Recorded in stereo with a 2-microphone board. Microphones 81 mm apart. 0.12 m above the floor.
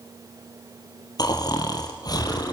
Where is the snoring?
55° left (ahead or behind), 3 m.